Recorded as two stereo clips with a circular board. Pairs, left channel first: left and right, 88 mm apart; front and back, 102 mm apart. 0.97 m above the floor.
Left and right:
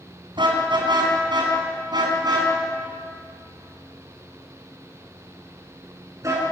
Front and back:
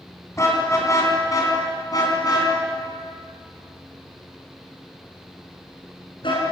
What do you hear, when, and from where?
0.4 s a car horn: 60° right, 5 m; by 6.4 s 35° right, 6.5 m